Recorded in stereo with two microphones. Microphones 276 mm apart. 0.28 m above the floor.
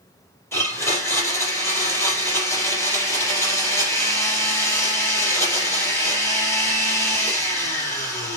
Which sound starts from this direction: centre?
A blender, at 0.5 s.